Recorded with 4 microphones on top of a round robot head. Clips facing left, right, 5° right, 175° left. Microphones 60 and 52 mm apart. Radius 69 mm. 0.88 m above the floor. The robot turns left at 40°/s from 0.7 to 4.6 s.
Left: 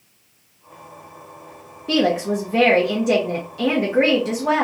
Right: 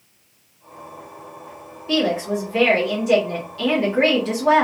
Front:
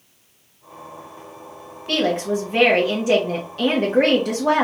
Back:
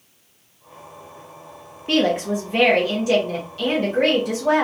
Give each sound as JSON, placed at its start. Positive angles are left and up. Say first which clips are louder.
{"t": 1.9, "sound": "a woman speaking", "louder": "left 2 dB, back 1 dB", "azimuth_deg": 105, "distance_m": 0.8}